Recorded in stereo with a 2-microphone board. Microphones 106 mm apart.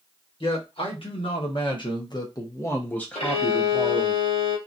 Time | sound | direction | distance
0.4 | a man speaking | 60° left (ahead or behind) | 1.7 m
3.1 | a violin | 70° left (ahead or behind) | 1.5 m